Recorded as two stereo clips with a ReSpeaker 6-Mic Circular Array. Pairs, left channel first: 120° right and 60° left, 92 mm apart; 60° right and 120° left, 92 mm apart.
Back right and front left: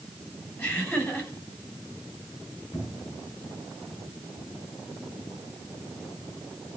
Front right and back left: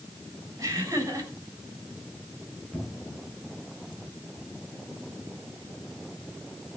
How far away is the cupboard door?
About 7 m.